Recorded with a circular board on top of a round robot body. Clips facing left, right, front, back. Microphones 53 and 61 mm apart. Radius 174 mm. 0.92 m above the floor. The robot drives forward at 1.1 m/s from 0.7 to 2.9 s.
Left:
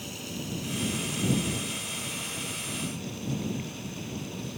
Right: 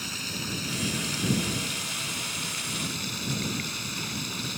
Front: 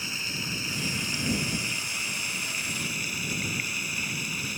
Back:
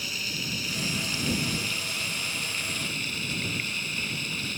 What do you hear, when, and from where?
0.0 s running water: 70° right; by 4.6 s 80° right